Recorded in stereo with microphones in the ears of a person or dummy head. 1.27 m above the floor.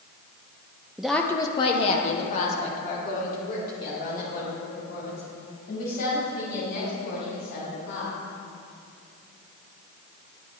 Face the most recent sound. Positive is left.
turn(degrees=60)  # may be behind; listen again after turning